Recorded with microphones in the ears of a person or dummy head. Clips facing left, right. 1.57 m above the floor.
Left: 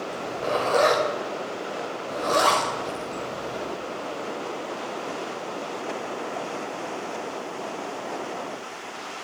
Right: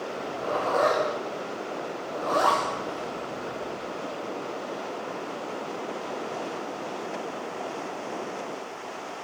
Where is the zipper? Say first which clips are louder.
Left 3 dB; 35° left (ahead or behind), 6 m.